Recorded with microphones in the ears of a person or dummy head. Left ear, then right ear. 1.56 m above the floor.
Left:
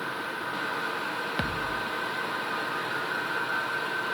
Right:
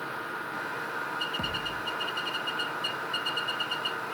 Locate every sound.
1.4 s a thud: 45° left (ahead or behind), 1.2 m